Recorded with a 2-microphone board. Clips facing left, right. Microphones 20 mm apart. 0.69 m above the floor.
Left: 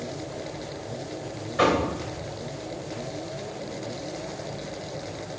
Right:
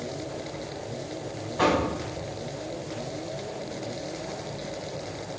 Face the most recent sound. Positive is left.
turn(degrees=75)  # may be behind; listen again after turning